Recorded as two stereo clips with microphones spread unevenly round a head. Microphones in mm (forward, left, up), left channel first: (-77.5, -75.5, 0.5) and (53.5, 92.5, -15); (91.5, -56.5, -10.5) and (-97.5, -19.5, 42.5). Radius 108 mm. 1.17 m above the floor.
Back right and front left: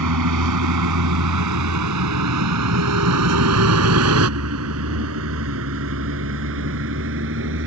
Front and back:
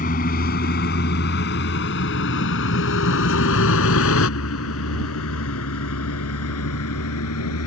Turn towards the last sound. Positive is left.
turn(degrees=10)